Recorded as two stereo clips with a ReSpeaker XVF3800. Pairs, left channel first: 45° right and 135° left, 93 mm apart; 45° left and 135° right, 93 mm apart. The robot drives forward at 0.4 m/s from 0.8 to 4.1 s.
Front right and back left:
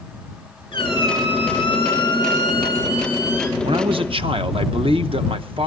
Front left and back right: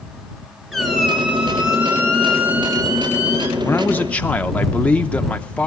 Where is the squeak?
50° right, 1.6 m; by 3.5 s 95° right, 1.3 m.